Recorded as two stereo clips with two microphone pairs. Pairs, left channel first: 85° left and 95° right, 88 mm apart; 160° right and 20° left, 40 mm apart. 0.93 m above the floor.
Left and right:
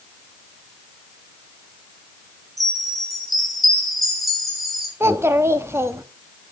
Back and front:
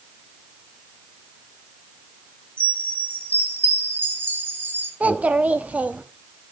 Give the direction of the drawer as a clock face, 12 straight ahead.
No drawer in this recording.